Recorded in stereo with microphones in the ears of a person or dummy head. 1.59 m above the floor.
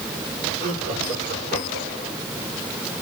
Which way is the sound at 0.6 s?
50° right (ahead or behind).